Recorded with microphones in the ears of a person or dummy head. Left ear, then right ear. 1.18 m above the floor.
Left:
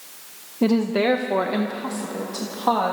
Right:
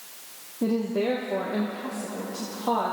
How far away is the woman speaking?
About 1.0 m.